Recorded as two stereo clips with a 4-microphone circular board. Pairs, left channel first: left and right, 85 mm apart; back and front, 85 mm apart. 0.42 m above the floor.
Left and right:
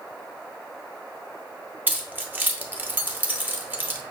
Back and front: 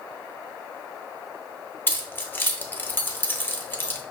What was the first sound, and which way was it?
Keys jangling, 140° right.